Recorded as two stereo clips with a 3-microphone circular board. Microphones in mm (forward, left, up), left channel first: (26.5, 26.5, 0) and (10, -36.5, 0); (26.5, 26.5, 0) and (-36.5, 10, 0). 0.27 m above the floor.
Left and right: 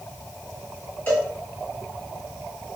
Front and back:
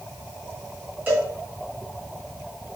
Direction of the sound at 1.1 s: 140° left.